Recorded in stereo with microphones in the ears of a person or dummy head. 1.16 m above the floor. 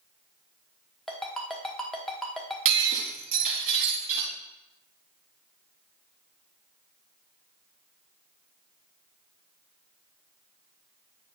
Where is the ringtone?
Centre (ahead or behind), 0.9 m.